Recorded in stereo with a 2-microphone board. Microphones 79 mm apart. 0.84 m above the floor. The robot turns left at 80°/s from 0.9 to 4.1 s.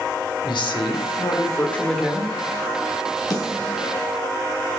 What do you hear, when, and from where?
0.4 s a woman speaking: 85° left, 2 m; by 2.3 s 30° right, 2 m
3.3 s a snare drum: 55° left (ahead or behind), 4 m; by 3.8 s 15° left (ahead or behind), 4 m